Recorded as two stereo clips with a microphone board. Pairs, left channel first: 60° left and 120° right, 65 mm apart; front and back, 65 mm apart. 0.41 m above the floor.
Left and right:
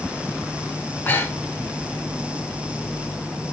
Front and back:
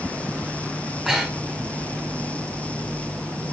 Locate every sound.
1.1 s breathing: 95° left, 1.6 m